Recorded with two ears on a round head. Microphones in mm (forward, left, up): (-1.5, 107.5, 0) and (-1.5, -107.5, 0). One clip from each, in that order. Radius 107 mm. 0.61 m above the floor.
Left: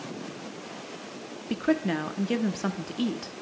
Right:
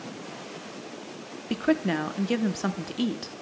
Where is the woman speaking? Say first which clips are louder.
Right 1 dB; 5° right (ahead or behind), 0.6 m.